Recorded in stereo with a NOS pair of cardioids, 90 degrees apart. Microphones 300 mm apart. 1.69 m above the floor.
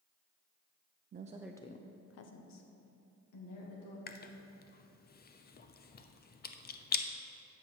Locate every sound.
1.1 s a woman speaking: 35° right, 0.6 m; by 4.0 s 80° left, 2.5 m
4.1 s chewing: 30° left, 0.6 m